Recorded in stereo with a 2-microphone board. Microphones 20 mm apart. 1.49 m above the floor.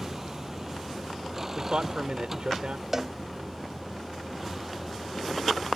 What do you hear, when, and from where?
0.0 s a vehicle: 25° right (ahead or behind); by 5.8 s 10° right (ahead or behind)
1.6 s a man speaking: 60° right (ahead or behind)
2.9 s a cowbell: 20° right (ahead or behind)